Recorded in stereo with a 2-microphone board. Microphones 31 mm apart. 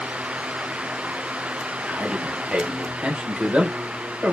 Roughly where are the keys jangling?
I don't hear keys jangling.